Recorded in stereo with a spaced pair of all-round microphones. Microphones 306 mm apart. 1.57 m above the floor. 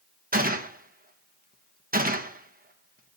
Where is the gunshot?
30° right (ahead or behind), 1.2 m.